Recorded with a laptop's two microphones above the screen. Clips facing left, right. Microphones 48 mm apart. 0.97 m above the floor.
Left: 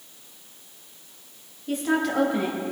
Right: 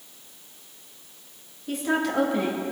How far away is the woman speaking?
About 1.7 m.